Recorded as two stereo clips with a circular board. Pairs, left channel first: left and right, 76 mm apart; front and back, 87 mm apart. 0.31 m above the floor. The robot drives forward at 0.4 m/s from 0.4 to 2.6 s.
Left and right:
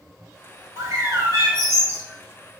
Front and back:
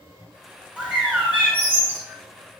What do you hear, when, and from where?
0.8 s a bird: 105° right, 2 m; by 2.0 s 120° right, 2 m